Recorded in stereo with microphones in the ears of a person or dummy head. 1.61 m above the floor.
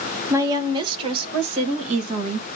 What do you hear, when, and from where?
0.3 s a woman speaking: 15° right (ahead or behind), 1.5 m; by 2.5 s 40° right (ahead or behind), 2.5 m